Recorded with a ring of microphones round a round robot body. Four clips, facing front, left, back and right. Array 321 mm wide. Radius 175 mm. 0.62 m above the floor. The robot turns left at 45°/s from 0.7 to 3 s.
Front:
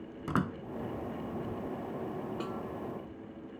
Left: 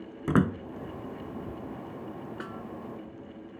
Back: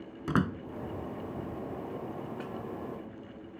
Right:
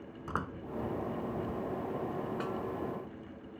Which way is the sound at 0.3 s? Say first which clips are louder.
Left 13 dB, back 3 dB; 100° left.